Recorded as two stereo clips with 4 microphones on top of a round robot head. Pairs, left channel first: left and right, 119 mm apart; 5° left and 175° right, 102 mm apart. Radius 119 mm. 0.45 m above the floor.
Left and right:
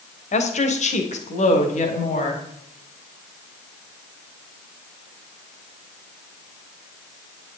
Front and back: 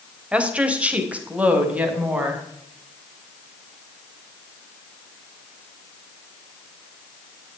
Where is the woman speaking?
105° left, 2 m.